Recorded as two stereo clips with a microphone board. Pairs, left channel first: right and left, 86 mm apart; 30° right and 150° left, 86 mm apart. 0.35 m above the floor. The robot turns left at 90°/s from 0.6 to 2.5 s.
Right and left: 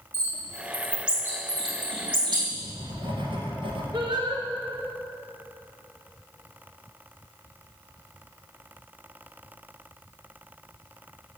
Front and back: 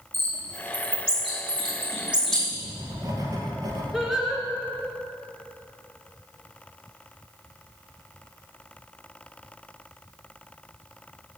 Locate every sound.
0.1 s a bird: 150° right, 3.5 m; by 2.4 s 50° left, 3.5 m
2.5 s writing: 100° left, 2 m
3.9 s singing: 65° left, 1.6 m